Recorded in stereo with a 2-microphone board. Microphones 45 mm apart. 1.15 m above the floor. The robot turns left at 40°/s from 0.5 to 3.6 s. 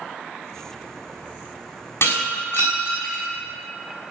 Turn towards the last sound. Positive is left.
turn(degrees=50)